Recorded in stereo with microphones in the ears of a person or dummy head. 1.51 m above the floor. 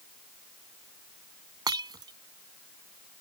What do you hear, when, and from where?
1.7 s breaking glass: 20° right (ahead or behind)